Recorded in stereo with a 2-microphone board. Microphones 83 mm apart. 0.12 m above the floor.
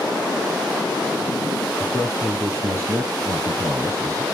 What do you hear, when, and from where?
1.8 s a man speaking: 35° right (ahead or behind), 3 m